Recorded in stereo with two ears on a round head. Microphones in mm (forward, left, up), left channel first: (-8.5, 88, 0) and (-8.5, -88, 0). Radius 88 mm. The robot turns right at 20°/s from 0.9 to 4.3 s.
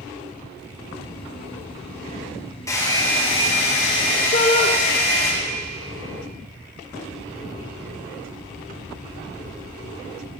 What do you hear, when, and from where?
2.7 s a hair dryer: 15° left, 4 m; by 5.3 s 50° left, 4 m
4.3 s a shout: 40° left (ahead or behind), 2.5 m